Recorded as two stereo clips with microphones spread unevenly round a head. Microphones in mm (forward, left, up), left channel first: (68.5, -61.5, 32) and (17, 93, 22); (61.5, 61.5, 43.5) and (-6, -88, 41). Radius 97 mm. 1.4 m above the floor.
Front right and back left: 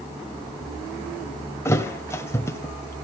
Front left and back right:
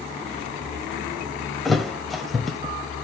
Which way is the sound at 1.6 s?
20° right.